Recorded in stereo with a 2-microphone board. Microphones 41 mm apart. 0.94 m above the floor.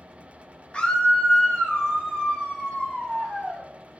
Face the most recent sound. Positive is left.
turn(degrees=30)  # may be behind; listen again after turning